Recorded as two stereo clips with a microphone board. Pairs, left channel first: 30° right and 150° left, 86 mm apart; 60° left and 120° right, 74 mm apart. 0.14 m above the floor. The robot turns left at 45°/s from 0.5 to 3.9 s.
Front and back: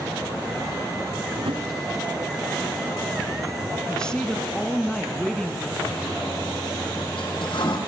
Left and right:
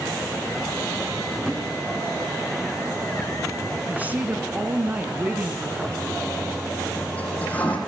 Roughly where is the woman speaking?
Right.